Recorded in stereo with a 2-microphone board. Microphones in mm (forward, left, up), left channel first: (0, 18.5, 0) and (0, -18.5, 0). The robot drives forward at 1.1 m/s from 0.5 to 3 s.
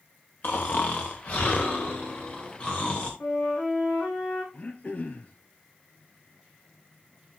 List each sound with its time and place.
0.4 s snoring: 60° left (ahead or behind), 3 m; by 3.1 s 30° left (ahead or behind), 5 m
3.2 s a flute: 60° left (ahead or behind), 8 m
4.5 s throat clearing: 40° left (ahead or behind), 2.0 m